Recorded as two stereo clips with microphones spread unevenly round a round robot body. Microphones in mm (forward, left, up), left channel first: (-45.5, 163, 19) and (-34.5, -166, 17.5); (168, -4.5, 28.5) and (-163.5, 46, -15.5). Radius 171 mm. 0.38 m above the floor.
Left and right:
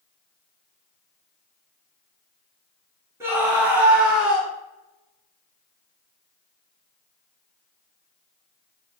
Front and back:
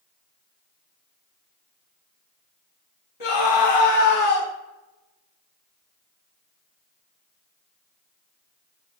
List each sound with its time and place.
3.2 s a scream: 5° right, 4 m; by 4.5 s straight ahead, 6 m